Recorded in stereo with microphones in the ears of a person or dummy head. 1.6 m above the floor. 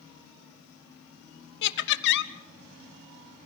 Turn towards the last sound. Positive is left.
turn(degrees=60)  # may be behind; listen again after turning